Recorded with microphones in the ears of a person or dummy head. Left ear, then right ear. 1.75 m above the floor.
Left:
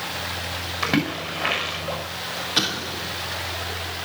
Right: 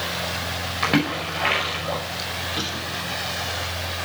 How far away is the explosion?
About 2.5 m.